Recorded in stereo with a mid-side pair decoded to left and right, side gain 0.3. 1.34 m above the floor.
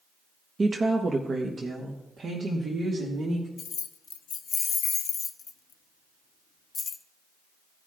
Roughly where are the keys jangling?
Ahead left.